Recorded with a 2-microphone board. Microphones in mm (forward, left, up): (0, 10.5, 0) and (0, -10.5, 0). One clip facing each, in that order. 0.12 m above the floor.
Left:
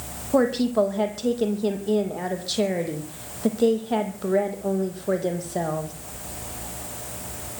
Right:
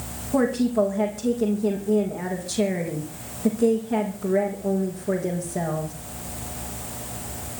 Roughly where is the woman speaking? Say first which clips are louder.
Left 1 dB; left.